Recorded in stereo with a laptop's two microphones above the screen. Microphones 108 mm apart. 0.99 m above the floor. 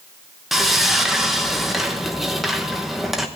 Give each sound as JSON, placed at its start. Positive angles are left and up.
{"t": 0.5, "sound": "sawing", "side_deg": 0, "distance_m": 1.0}